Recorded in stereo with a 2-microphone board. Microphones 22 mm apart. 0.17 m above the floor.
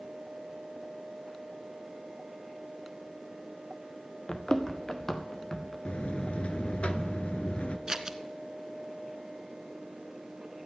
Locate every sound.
4.3 s running footsteps: 35° left (ahead or behind), 1.3 m; by 5.8 s 20° left (ahead or behind), 2 m
5.8 s a buzzer: 65° left (ahead or behind), 0.8 m
7.9 s scissors: 25° right (ahead or behind), 0.7 m